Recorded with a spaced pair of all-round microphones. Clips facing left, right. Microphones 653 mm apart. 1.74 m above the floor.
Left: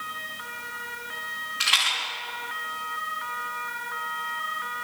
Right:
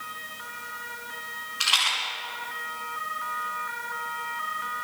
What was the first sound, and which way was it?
A rattle, 45° left (ahead or behind).